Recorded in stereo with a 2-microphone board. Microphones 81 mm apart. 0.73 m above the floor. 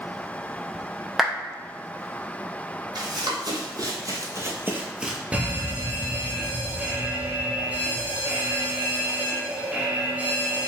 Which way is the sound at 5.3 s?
15° right (ahead or behind).